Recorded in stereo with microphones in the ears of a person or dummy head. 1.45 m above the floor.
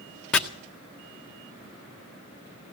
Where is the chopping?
5° left (ahead or behind), 0.8 m.